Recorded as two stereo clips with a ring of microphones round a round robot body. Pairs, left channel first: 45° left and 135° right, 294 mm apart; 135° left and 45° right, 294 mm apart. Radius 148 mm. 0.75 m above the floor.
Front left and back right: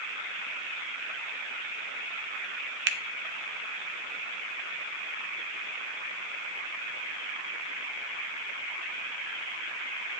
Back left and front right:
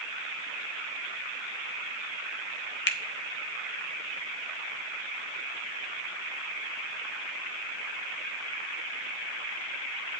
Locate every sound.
2.9 s a finger snap: straight behind, 0.7 m